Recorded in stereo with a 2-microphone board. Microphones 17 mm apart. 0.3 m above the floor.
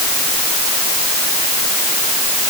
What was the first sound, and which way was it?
Only background noise.